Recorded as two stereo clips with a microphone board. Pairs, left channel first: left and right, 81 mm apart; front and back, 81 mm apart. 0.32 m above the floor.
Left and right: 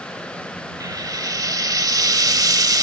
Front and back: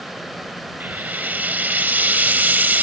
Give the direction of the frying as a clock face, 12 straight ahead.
4 o'clock.